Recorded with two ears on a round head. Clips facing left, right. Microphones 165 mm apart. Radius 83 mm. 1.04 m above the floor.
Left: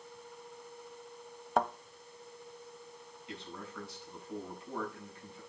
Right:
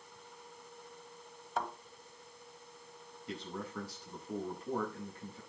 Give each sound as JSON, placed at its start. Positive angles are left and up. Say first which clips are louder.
{"t": 1.6, "sound": "a thud", "louder": "left 7 dB", "side_deg": 45, "distance_m": 1.2}
{"t": 3.3, "sound": "a man speaking", "louder": "right 4 dB", "side_deg": -35, "distance_m": 9.0}